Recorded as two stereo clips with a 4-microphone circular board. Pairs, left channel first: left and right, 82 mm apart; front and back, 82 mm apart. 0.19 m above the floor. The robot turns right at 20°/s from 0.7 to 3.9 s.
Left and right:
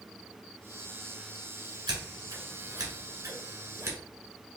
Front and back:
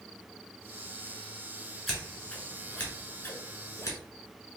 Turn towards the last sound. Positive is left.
turn(degrees=-45)